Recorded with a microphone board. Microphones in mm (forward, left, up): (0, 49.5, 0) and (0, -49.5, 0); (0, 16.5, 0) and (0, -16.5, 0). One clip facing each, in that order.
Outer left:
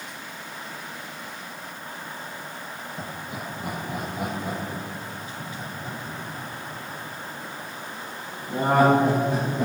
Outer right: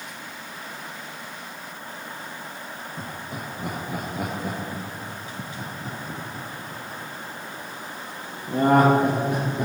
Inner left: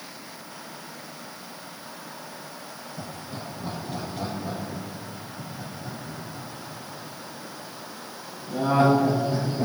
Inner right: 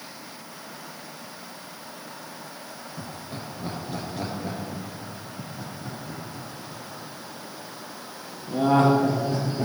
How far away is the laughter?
About 2.5 m.